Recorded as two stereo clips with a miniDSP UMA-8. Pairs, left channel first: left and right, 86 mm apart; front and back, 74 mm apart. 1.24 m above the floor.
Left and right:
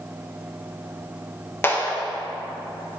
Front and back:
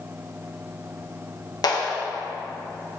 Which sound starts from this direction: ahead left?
A clap, at 1.6 s.